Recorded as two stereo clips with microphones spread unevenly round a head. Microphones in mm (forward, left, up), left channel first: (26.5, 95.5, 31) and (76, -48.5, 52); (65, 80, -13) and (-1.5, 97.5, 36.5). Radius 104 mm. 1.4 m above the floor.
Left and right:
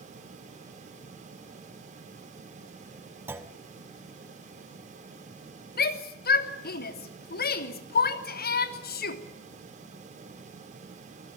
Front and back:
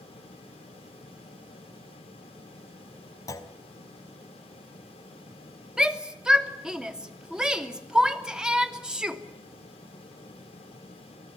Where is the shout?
90° left, 2.5 m.